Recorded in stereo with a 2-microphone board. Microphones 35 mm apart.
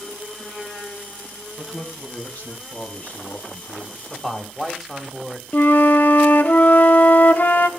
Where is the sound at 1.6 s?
45° left (ahead or behind), 3 m.